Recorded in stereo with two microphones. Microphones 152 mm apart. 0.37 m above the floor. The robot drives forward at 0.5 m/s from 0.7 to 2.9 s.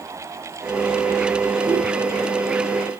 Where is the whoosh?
10° right (ahead or behind), 3 m.